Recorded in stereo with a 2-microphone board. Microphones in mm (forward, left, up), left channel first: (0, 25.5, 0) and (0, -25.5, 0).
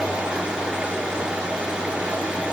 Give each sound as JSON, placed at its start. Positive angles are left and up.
{"t": 0.0, "sound": "running water", "side_deg": -15, "distance_m": 5.0}